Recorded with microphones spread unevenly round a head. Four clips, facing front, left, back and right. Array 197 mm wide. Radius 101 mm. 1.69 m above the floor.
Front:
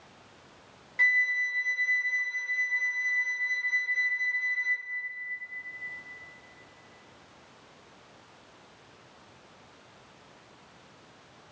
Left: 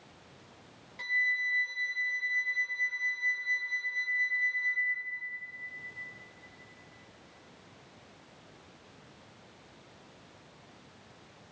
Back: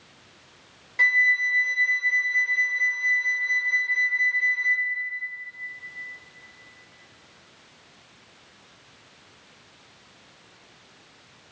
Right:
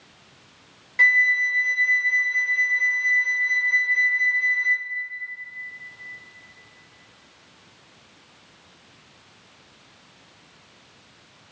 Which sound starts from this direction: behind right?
A flute, at 1.0 s.